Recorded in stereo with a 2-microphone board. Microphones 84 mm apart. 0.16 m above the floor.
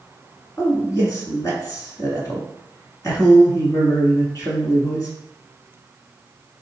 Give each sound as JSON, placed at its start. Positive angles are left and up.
{"t": 0.6, "sound": "a man speaking", "side_deg": 40, "distance_m": 1.7}